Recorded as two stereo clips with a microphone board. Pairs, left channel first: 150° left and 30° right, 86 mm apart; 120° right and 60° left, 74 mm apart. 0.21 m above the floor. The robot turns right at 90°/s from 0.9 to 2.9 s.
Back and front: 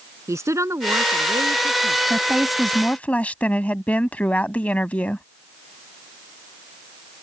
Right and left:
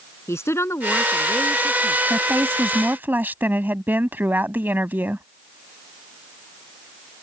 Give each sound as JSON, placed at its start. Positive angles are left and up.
{"t": 0.3, "sound": "a woman speaking", "azimuth_deg": -75}
{"t": 2.1, "sound": "a woman speaking", "azimuth_deg": 20}